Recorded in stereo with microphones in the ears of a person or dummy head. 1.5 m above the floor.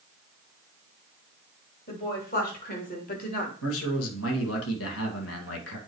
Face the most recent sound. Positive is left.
turn(degrees=80)